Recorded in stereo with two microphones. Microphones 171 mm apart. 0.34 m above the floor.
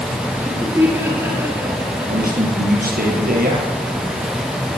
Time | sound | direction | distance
0.3 | laughter | 10° right (ahead or behind) | 5 m
2.1 | a man speaking | 55° right (ahead or behind) | 7.5 m